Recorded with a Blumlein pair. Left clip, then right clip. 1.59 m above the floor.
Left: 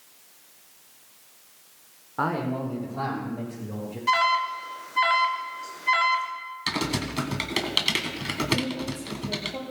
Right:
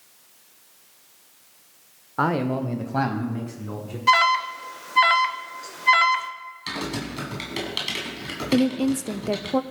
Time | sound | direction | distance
2.2 | a man speaking | 15° right | 0.8 m
4.1 | an alarm | 20° right | 0.8 m
6.7 | typing on a keyboard | 15° left | 1.6 m
8.5 | a woman speaking | 55° right | 0.6 m